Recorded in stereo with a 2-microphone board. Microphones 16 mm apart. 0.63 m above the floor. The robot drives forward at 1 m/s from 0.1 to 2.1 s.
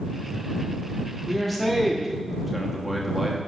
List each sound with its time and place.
1.3 s a man speaking: 5° right (ahead or behind), 1.3 m